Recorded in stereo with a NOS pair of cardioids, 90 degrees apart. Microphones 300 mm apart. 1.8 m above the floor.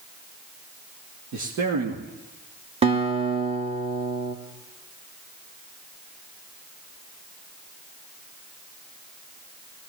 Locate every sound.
1.3 s a man speaking: 65° right, 3 m
2.8 s a guitar: 20° right, 2.5 m